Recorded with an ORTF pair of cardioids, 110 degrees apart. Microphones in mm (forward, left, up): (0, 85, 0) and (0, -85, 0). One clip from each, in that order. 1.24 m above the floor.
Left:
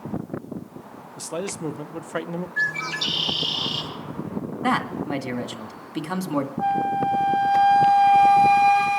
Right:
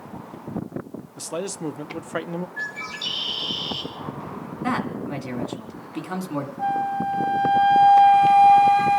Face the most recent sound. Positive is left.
turn(degrees=25)